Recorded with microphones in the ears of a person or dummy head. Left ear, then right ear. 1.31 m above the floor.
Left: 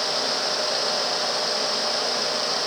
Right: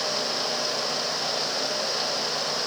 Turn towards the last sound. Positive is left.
No sound to turn to.